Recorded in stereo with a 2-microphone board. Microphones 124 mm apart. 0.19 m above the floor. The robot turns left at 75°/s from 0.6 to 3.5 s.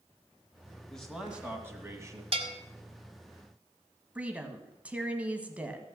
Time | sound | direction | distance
0.9 | a man speaking | 5° left (ahead or behind) | 1.5 m
2.3 | a bell | 55° right (ahead or behind) | 0.9 m
4.2 | a woman speaking | 10° right (ahead or behind) | 1.2 m